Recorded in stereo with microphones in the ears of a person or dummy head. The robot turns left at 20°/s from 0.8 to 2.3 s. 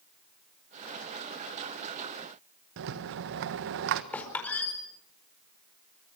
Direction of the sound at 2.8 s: 65° right (ahead or behind).